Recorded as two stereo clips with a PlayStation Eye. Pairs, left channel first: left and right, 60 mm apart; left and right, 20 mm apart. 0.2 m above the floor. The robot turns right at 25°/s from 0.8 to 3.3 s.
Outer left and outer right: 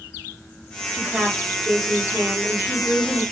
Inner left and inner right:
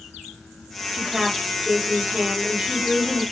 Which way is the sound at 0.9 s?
165° left.